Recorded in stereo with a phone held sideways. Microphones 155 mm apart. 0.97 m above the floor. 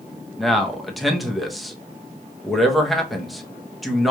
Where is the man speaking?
Centre (ahead or behind), 0.8 m.